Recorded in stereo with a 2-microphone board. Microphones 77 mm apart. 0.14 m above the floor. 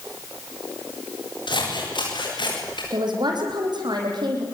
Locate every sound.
1.5 s scissors: 80° left, 9 m
2.9 s a man speaking: 65° right (ahead or behind), 7 m